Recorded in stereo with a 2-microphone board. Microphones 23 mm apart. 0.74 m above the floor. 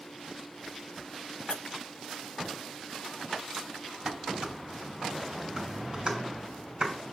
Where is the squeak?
55° left (ahead or behind), 0.5 m.